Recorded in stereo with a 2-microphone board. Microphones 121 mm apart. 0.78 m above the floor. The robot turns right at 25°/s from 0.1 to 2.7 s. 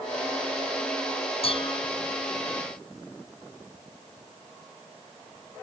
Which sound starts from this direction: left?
Dishes clattering, at 1.4 s.